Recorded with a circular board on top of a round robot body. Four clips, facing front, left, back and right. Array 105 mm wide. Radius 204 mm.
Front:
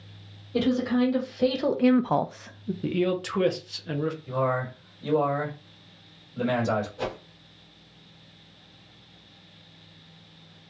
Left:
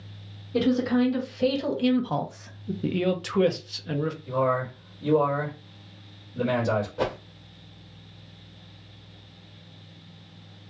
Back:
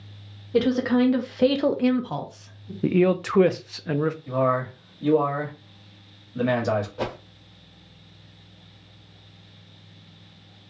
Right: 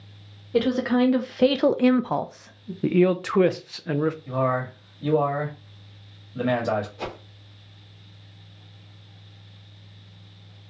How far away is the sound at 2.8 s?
About 0.7 m.